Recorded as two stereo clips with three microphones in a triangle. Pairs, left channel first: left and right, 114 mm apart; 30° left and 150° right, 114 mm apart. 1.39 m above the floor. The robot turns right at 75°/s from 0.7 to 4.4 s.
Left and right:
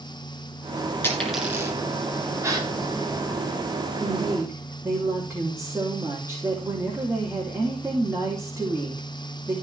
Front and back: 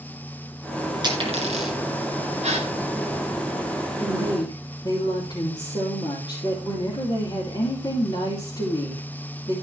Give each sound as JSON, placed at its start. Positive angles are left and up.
{"t": 1.0, "sound": "a dropped coin", "azimuth_deg": 160, "distance_m": 6.0}
{"t": 2.4, "sound": "a gasp", "azimuth_deg": -155, "distance_m": 3.0}
{"t": 4.0, "sound": "a woman speaking", "azimuth_deg": -45, "distance_m": 5.0}